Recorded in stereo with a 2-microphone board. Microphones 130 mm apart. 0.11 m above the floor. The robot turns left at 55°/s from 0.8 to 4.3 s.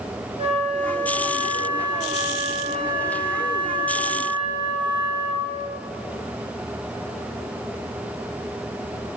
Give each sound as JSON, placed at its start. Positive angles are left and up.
{"t": 0.4, "sound": "a flute", "azimuth_deg": -70, "distance_m": 3.0}